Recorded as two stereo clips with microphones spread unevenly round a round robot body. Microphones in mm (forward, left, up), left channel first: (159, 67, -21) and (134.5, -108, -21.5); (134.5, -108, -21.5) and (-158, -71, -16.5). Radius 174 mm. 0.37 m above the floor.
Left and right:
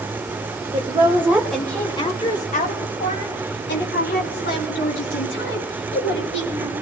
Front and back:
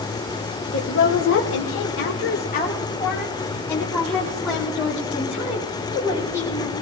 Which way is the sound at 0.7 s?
40° right.